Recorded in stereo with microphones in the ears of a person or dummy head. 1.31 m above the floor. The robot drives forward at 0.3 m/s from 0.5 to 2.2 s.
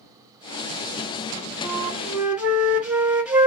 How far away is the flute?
About 0.6 m.